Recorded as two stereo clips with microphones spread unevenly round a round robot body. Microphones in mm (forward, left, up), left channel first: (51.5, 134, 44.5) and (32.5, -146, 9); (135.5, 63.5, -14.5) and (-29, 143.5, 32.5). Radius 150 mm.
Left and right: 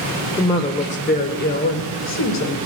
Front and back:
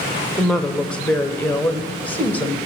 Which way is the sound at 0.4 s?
10° left.